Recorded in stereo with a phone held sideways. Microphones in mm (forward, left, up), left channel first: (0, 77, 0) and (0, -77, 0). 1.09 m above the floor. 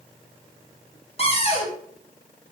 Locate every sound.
1.2 s a cupboard door: 40° left (ahead or behind), 0.9 m